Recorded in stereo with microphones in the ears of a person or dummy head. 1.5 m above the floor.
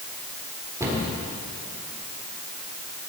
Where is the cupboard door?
15° right (ahead or behind), 4 m.